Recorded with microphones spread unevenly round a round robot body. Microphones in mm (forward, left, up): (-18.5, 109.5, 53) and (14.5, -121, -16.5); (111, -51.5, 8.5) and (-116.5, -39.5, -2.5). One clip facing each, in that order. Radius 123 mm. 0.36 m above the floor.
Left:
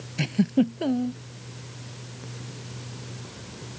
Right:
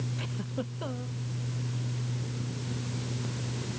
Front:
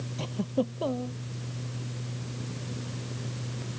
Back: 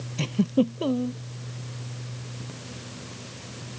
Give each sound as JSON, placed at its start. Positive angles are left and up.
{"t": 0.2, "sound": "a giggle", "azimuth_deg": 115}